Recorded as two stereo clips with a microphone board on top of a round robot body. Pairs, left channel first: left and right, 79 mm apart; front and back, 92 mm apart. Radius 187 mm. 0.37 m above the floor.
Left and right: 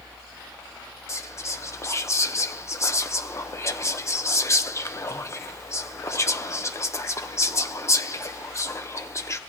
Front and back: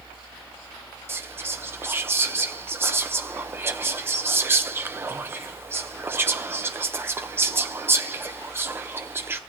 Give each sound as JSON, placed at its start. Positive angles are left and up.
{"t": 1.1, "sound": "whispering", "azimuth_deg": 125, "distance_m": 1.0}